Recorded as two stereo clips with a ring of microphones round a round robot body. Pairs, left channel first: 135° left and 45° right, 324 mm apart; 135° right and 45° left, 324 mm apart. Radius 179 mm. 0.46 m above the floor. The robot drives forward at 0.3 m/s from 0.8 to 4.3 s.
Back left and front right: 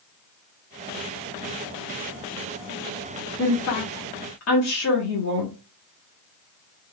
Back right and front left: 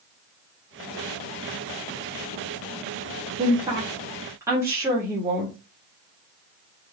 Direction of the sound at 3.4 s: 110° left.